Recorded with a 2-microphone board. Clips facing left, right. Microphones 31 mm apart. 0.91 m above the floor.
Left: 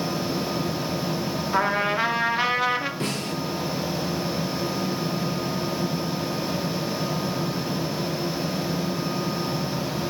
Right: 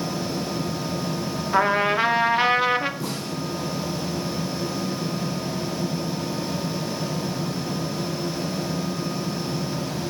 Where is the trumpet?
10° right (ahead or behind), 1.7 m.